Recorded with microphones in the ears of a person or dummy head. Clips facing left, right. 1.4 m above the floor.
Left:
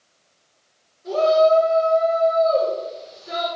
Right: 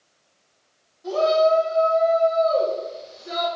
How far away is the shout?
About 4.5 m.